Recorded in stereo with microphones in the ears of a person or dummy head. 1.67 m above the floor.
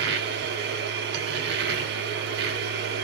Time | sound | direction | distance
0.0 | a machine running | 50° right (ahead or behind) | 0.7 m